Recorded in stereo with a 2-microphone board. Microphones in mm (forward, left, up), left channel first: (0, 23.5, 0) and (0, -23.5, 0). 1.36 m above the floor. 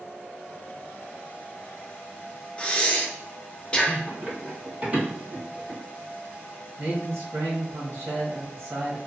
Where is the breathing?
25° left (ahead or behind), 0.6 m.